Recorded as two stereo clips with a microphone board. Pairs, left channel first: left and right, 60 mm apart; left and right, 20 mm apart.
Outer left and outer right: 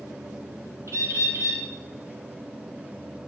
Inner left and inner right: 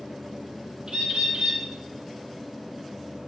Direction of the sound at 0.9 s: 50° right (ahead or behind).